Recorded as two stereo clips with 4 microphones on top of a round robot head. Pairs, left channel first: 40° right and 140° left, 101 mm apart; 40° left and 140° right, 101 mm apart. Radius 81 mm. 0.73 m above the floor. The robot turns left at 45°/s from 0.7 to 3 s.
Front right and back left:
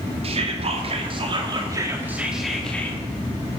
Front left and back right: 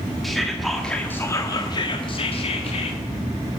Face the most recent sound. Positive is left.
turn(degrees=25)